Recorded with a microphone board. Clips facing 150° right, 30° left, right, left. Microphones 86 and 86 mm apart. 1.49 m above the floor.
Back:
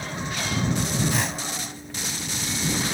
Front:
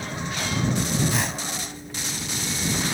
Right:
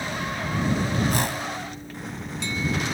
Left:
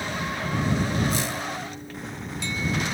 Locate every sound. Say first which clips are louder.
1.1 s a whoosh: even, right 2 dB; 60° right